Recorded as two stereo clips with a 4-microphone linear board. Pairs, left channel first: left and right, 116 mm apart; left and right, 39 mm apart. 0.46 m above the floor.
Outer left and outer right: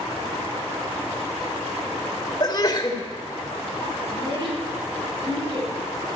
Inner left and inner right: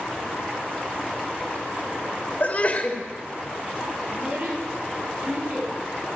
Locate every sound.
2.4 s a sneeze: 40° left (ahead or behind), 2 m
4.1 s a child speaking: 40° right (ahead or behind), 6 m